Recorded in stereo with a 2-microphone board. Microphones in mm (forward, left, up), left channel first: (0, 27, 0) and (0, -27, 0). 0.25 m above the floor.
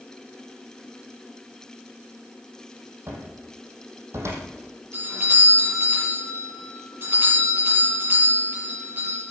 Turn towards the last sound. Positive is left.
turn(degrees=-45)  # may be behind; listen again after turning